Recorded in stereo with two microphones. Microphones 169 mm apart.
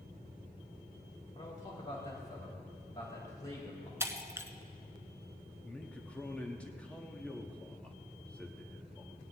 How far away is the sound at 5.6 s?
About 1.2 m.